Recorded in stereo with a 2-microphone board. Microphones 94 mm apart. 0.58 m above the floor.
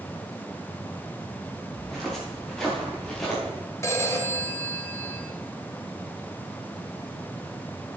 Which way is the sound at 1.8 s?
Centre (ahead or behind).